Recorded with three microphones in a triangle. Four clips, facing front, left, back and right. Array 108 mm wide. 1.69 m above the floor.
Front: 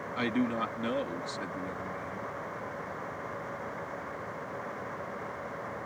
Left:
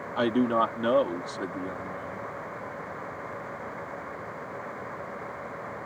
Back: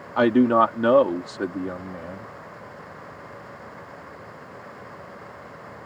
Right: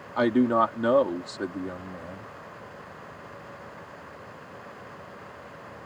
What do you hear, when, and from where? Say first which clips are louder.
0.2 s a man speaking: right 3 dB, back 14 dB; 170° right